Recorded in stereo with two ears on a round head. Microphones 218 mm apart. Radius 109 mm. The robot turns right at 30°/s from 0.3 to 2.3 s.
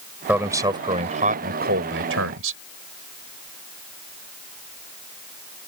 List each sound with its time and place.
0.3 s a man speaking: 175° right; by 2.6 s 115° right